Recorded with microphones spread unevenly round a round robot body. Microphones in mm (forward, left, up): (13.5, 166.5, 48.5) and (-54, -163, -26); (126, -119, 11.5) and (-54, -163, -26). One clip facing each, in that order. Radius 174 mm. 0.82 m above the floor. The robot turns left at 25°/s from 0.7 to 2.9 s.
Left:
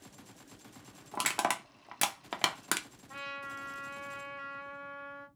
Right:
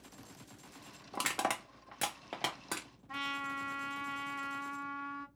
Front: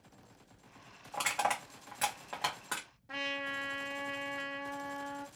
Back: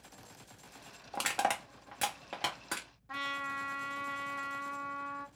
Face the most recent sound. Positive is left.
turn(degrees=-60)